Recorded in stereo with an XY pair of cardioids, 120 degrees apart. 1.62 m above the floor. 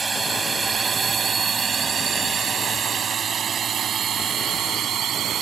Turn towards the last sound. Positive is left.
turn(degrees=-55)